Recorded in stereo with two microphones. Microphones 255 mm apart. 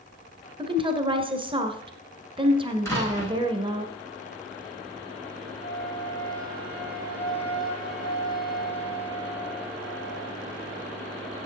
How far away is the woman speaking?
About 1.5 m.